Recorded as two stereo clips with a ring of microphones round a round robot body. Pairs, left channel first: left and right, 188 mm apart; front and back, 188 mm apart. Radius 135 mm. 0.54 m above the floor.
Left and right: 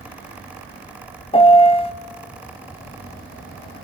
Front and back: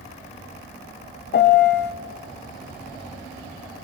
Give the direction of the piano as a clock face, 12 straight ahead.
11 o'clock.